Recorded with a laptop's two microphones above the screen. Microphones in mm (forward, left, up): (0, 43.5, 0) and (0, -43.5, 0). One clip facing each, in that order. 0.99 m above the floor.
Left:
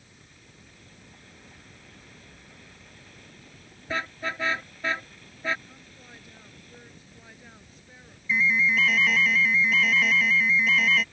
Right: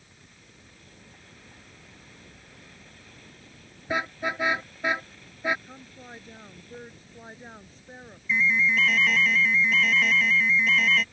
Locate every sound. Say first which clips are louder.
3.9 s a car horn: right 3 dB; 15° right (ahead or behind)
5.7 s a woman speaking: right 5 dB; 35° right (ahead or behind)
8.3 s an alarm: even; centre (ahead or behind)